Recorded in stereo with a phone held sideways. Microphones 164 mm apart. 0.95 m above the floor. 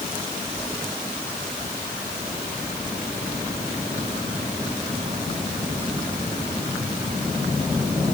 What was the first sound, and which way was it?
Only background noise.